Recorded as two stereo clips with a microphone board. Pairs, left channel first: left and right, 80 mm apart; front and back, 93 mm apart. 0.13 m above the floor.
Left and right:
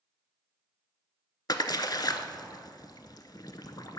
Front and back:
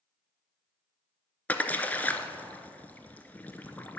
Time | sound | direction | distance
1.5 | a splash | 70° left | 0.5 m